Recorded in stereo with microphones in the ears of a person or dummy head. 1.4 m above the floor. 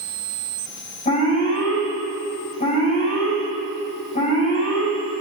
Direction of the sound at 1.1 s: 35° left (ahead or behind).